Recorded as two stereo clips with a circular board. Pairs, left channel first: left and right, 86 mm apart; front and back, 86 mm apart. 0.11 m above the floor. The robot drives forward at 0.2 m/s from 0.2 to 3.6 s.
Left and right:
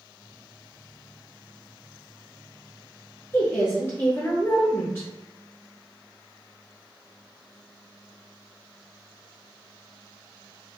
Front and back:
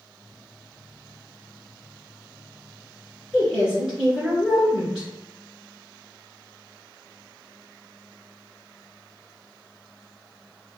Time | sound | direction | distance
3.3 | a woman speaking | 110° left | 1.5 m